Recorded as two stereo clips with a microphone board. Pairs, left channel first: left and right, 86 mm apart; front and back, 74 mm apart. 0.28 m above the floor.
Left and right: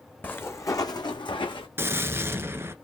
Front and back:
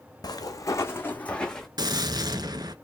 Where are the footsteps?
25° left, 0.8 m; by 1.7 s 85° left, 1.0 m.